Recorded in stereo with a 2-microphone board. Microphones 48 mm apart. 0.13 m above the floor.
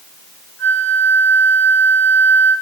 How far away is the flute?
About 1.0 m.